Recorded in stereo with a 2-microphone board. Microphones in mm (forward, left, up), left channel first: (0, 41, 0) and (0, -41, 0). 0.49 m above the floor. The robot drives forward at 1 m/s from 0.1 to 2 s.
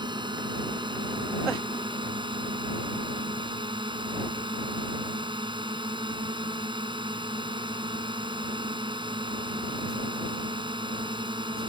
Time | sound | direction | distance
0.0 | a drone | 70° right (ahead or behind) | ?